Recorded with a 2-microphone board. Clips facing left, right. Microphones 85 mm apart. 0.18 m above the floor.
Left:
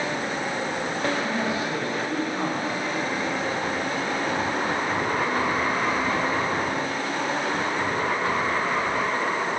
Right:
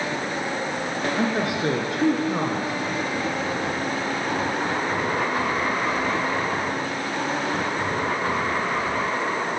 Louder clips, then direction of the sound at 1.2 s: Right 2 dB; 70° right (ahead or behind).